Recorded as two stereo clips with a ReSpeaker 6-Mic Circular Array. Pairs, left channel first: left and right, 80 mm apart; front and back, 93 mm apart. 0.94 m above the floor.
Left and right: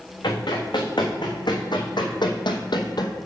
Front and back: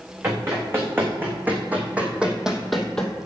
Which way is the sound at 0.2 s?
120° left.